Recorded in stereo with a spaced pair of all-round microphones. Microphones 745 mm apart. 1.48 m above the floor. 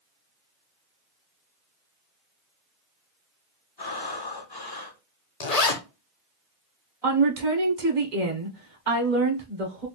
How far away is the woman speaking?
About 1.3 m.